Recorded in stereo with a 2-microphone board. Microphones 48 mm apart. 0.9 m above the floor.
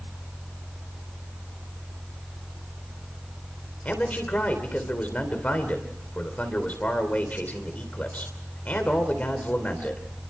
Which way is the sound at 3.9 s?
30° left (ahead or behind).